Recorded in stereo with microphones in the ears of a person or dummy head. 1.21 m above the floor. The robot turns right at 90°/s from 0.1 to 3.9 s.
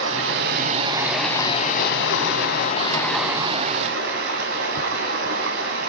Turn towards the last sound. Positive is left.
turn(degrees=-115)